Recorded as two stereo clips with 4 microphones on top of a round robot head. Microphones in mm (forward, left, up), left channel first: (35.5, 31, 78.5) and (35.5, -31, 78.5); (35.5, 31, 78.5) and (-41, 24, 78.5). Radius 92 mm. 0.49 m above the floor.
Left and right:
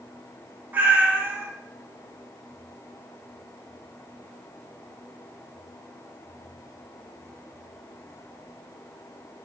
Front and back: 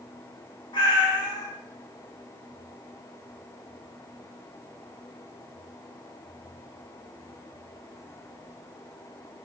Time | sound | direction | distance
0.7 | a cat meowing | 30° right | 0.5 m